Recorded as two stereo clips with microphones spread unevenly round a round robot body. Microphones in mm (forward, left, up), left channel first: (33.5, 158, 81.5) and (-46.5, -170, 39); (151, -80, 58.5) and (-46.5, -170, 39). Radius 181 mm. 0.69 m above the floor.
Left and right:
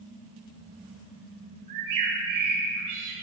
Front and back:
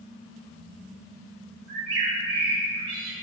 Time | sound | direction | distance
1.7 | a bird | 140° right | 3.5 m